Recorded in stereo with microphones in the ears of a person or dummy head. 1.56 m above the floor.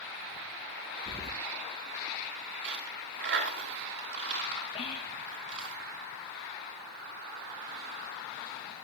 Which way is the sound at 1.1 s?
20° right (ahead or behind).